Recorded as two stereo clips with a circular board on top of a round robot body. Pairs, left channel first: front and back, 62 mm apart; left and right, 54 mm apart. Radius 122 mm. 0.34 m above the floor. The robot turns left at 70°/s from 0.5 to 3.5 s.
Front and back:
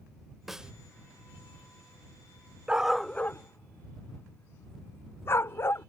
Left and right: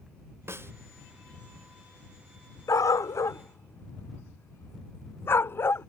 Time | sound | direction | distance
0.5 | a snare drum | 95° right | ?
2.7 | a dog barking | 105° left | ?